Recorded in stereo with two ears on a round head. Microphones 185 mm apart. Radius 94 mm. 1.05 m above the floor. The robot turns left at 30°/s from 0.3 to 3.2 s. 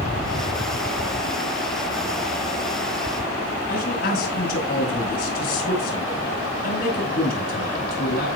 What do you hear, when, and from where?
3.7 s a man speaking: 50° left (ahead or behind), 6.5 m